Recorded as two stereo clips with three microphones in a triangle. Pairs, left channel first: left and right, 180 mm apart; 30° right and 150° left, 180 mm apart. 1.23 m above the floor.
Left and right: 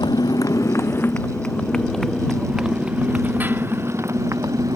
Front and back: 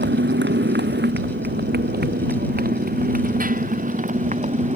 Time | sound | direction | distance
0.0 | a motorcycle | 160° left | ?